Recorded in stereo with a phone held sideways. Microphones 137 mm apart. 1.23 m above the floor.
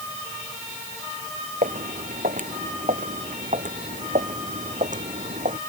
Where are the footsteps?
70° right (ahead or behind); by 5.6 s 65° right (ahead or behind).